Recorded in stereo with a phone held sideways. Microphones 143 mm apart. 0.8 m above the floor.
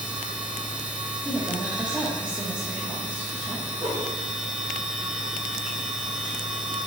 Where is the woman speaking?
10° right (ahead or behind), 0.8 m.